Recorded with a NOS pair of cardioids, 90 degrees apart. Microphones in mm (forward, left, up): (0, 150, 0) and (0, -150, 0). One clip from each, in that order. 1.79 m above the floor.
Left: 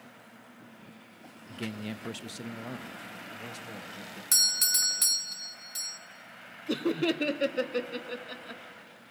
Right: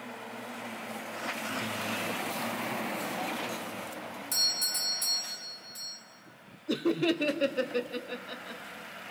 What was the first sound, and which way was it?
A man speaking, 20° left.